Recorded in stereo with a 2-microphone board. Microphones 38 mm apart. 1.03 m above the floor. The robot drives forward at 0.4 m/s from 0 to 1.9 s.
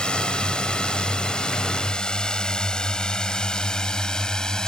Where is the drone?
25° left (ahead or behind); by 4.7 s 20° left (ahead or behind).